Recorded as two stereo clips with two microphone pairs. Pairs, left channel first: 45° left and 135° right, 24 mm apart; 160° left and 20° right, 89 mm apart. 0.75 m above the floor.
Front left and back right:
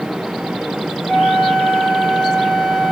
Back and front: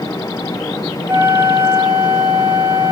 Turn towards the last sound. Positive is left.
turn(degrees=15)